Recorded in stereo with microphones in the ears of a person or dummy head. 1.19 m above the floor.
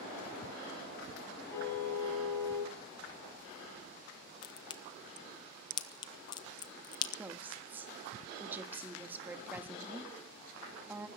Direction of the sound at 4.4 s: 25° left (ahead or behind).